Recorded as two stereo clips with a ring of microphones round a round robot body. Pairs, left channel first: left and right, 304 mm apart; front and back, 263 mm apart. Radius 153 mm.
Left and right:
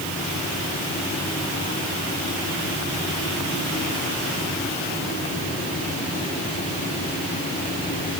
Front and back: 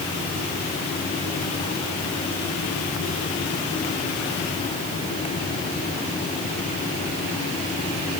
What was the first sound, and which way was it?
Only background noise.